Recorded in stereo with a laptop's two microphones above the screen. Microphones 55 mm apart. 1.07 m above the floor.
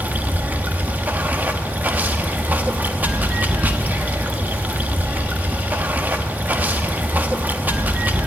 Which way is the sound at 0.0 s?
30° right (ahead or behind).